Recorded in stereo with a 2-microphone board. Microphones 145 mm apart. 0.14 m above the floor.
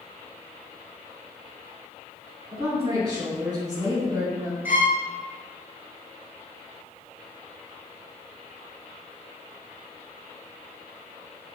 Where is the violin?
15° right (ahead or behind), 0.6 m.